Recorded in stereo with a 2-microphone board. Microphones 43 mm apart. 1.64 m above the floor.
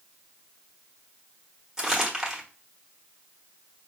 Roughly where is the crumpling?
Centre.